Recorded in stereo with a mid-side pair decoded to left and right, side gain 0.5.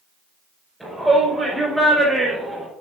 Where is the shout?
5° right, 4 m; by 2.7 s 15° right, 3.5 m.